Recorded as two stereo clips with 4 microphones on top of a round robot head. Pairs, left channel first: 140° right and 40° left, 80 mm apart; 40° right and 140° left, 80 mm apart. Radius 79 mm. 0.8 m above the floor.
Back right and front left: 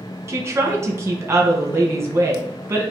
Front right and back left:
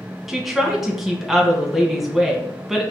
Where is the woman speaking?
55° left, 1.0 m.